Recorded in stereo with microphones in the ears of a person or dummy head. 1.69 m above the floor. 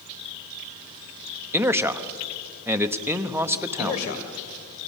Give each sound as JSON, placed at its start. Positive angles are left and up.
{"t": 1.5, "sound": "a man speaking", "side_deg": -15, "distance_m": 1.0}
{"t": 3.8, "sound": "a man speaking", "side_deg": 80, "distance_m": 2.5}